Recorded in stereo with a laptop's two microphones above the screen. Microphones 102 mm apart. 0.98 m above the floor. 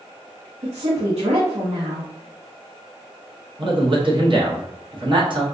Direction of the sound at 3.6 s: 50° right (ahead or behind).